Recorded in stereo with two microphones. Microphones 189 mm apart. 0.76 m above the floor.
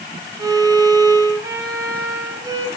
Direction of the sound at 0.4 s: 15° right (ahead or behind).